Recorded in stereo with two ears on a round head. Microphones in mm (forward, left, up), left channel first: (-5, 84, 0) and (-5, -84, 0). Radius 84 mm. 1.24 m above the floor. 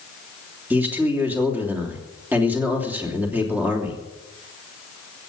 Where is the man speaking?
10° right (ahead or behind), 3 m.